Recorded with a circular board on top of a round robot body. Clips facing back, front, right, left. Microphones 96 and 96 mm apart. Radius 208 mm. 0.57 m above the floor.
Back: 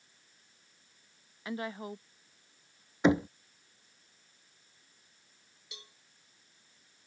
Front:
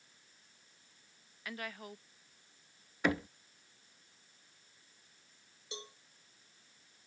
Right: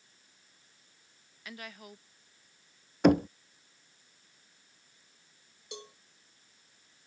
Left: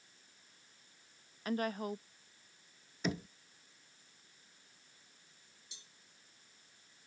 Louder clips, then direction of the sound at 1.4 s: Back 7 dB, left 11 dB; 120° left.